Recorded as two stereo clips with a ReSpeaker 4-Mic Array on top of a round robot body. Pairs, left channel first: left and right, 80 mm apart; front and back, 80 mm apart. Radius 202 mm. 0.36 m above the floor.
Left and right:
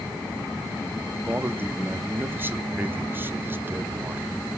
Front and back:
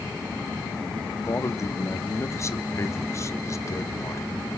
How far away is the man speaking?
About 1.1 m.